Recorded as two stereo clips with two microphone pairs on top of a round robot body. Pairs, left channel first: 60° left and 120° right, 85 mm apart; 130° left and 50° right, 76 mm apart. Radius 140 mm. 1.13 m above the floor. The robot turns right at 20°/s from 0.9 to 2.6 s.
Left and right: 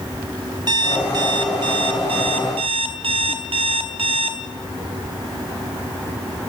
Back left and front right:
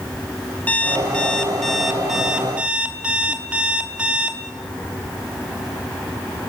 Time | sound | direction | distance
0.7 | an alarm clock | 155° right | 0.9 m